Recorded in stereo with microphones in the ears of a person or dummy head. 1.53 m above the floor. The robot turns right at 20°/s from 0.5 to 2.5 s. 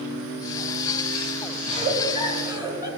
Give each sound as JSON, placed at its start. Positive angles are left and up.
{"t": 1.6, "sound": "a giggle", "side_deg": -35, "distance_m": 2.5}